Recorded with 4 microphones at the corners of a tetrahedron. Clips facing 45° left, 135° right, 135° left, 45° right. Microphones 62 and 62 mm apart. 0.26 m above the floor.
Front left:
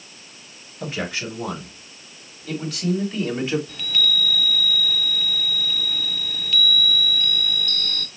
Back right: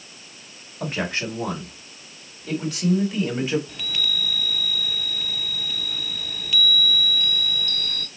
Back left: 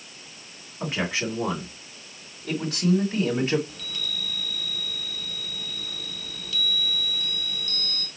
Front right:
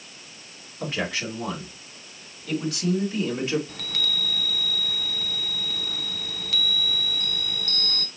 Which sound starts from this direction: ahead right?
A chime, at 3.7 s.